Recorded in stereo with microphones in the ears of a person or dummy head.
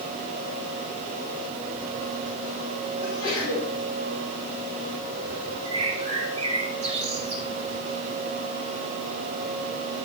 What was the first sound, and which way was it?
A sneeze, 50° left (ahead or behind).